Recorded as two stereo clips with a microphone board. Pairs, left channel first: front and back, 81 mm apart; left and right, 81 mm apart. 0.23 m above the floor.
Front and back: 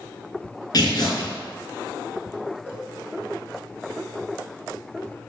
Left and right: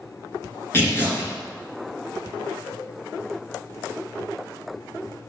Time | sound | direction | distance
0.7 | tearing paper | 30° left | 4 m
2.7 | a cowbell | 75° left | 5 m